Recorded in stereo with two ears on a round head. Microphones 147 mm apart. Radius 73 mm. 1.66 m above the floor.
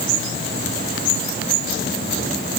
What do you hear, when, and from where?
Only background noise.